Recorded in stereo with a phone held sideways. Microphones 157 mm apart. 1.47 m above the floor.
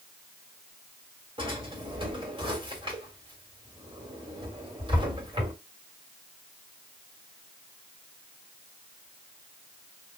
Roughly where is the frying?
No frying in this recording.